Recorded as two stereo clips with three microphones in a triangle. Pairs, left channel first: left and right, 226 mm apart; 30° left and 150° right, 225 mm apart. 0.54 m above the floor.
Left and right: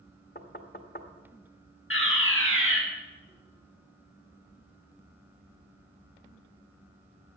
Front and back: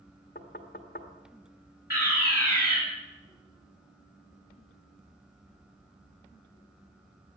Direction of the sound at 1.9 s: 70° left.